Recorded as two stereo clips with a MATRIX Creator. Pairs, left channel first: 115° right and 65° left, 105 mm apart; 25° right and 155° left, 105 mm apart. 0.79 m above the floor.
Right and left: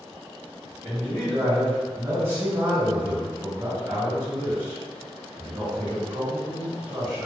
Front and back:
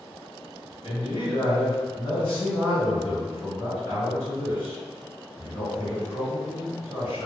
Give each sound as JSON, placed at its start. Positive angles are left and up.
{"t": 0.8, "sound": "a man speaking", "azimuth_deg": -5, "distance_m": 1.5}